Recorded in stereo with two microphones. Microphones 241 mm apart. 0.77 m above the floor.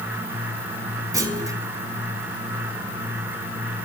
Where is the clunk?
15° right (ahead or behind), 1.7 m.